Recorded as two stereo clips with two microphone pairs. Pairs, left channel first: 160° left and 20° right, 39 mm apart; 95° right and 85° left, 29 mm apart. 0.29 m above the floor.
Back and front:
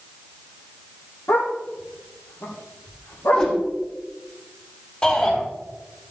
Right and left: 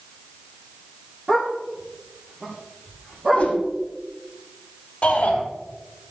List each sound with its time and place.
1.3 s a dog barking: 165° left, 5 m; by 3.5 s 160° left, 7 m
3.3 s a whoosh: 140° right, 4.5 m
5.0 s a shout: 140° right, 8 m